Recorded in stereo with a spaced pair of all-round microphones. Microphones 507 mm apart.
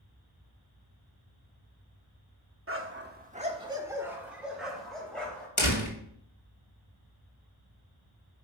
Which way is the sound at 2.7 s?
25° right (ahead or behind).